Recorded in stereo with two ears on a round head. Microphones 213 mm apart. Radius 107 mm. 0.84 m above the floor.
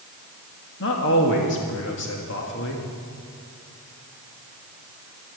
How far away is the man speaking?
About 1.7 m.